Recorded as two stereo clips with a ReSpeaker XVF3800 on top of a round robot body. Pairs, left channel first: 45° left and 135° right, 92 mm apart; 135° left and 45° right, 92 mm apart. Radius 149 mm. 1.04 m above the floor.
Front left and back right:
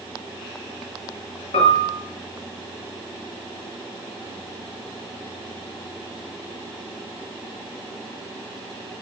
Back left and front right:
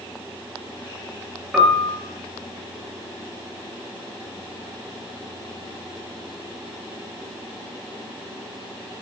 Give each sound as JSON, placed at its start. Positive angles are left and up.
{"t": 1.5, "sound": "a piano", "azimuth_deg": 40, "distance_m": 5.5}